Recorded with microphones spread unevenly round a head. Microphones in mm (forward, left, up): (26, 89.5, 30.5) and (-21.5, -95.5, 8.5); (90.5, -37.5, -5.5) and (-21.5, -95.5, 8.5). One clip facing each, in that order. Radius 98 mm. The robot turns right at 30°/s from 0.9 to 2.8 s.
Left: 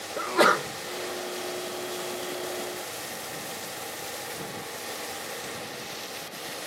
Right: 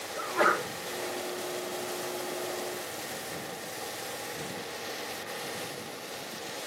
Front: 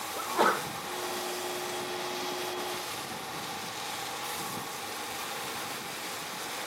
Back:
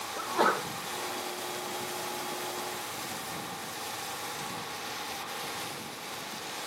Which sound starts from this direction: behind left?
A sneeze, at 0.2 s.